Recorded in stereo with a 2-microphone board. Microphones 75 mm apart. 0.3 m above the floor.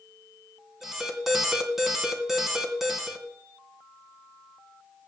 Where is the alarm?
5° right (ahead or behind), 2.5 m.